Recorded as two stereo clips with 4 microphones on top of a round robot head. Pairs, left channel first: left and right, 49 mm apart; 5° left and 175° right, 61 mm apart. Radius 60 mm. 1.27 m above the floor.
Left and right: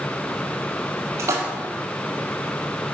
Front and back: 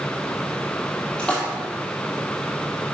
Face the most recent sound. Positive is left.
turn(degrees=-75)